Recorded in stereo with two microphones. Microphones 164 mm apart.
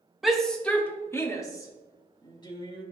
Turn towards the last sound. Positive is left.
turn(degrees=30)  # may be behind; listen again after turning